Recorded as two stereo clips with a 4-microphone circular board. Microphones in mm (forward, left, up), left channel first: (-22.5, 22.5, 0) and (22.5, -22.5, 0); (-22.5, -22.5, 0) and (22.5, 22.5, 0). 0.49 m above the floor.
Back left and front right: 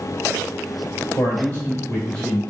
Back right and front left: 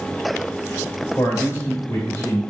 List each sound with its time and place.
1.2 s a man speaking: 175° right, 1.9 m; by 2.4 s 145° right, 1.7 m